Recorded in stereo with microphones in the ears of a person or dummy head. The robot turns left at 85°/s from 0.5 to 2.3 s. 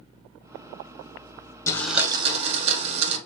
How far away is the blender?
About 0.8 m.